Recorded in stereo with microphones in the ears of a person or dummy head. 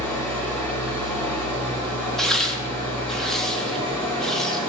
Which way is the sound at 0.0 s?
10° left (ahead or behind).